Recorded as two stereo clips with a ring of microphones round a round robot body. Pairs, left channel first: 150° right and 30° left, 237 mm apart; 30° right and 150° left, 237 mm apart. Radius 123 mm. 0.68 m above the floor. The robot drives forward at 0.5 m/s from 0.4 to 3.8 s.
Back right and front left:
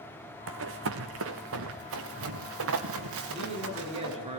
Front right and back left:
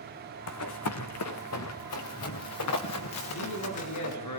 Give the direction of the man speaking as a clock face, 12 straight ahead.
1 o'clock.